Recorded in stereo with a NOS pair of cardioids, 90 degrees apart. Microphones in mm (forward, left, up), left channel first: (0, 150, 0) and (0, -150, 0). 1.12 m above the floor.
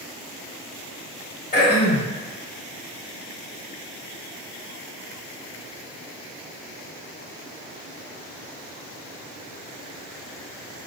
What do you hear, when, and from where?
1.5 s throat clearing: 30° left, 1.8 m